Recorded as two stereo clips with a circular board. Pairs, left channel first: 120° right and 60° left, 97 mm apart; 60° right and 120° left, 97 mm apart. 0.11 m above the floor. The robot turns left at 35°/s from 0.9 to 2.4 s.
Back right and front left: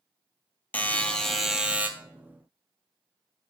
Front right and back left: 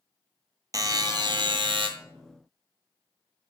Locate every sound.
0.7 s a buzzer: 165° left, 0.5 m; by 1.9 s 130° left, 0.5 m